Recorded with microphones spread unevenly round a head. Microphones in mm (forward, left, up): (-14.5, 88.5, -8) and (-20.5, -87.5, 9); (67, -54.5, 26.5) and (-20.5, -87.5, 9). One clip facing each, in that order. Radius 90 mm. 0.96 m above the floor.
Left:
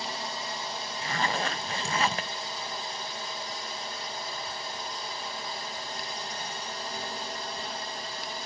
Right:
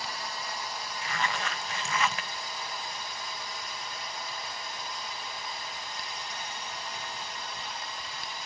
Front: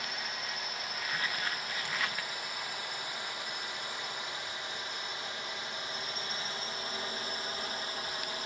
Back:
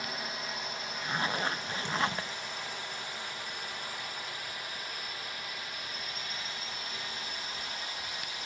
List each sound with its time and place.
0.0 s a drone: 130° left; by 8.5 s 60° left
1.0 s a zipper: 145° left